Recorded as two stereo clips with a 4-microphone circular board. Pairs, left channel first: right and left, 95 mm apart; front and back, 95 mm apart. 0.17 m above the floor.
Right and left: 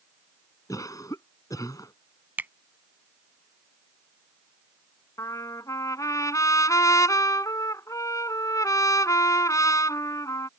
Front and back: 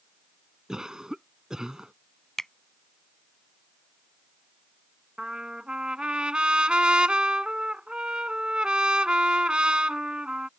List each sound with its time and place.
0.7 s a cough: 100° right
2.4 s a finger snap: 75° left
5.2 s a trumpet: 110° right